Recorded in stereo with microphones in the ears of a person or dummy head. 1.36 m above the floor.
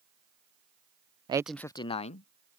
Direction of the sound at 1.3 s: 35° right (ahead or behind).